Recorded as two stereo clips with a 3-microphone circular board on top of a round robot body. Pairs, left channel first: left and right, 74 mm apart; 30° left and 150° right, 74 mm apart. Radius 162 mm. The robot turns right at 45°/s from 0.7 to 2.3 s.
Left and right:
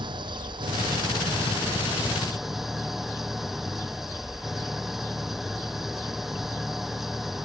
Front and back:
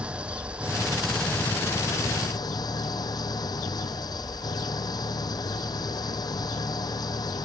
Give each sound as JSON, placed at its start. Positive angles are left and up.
{"t": 0.0, "sound": "an engine running", "azimuth_deg": -75}